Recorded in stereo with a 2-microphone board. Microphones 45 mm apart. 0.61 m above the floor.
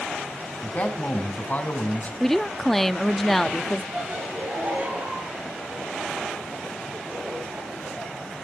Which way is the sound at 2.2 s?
5° left (ahead or behind).